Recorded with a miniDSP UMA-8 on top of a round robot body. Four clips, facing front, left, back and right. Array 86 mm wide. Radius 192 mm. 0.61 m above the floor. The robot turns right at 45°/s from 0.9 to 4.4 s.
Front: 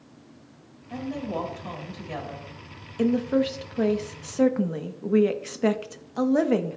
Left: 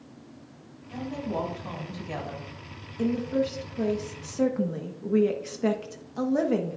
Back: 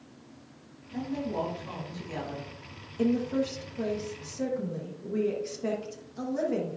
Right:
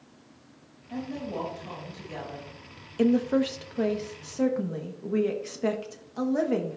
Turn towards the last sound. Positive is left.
turn(degrees=0)